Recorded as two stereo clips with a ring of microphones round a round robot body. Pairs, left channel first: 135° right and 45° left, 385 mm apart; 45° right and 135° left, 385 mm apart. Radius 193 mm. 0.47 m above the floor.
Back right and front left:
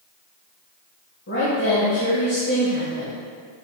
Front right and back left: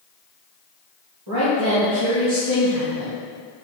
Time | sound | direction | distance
1.3 | a woman speaking | 165° left | 1.9 m